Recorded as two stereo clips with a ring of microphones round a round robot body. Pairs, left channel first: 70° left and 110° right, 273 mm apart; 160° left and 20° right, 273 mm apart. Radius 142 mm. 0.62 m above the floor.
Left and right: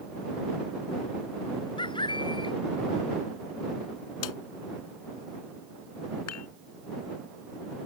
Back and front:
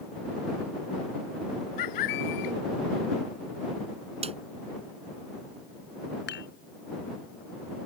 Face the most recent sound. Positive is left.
turn(degrees=105)